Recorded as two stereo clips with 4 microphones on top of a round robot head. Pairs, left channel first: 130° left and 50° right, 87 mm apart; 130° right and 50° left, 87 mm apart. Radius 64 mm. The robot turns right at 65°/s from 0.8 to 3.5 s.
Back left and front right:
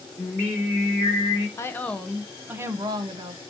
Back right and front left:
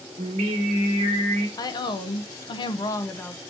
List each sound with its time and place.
0.2 s singing: 55° left, 3 m; by 1.5 s 100° left, 3 m
1.6 s a woman speaking: 175° right, 1.0 m; by 3.4 s 55° right, 1.0 m